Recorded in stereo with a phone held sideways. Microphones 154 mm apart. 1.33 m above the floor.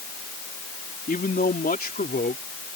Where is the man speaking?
70° left (ahead or behind); by 2.4 s 85° left.